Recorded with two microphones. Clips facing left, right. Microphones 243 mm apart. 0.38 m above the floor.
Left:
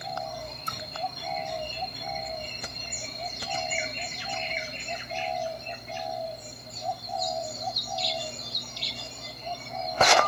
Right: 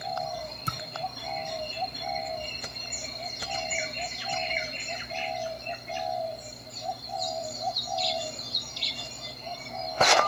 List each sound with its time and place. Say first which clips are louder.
0.7 s a thud: right 2 dB; 80° right, 2.5 m